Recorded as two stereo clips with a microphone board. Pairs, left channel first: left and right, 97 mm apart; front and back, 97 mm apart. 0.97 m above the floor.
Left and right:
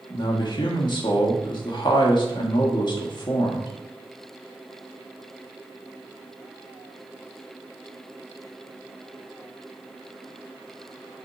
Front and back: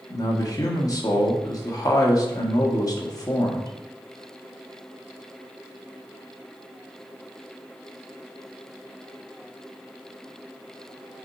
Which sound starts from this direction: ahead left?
A man speaking, at 0.1 s.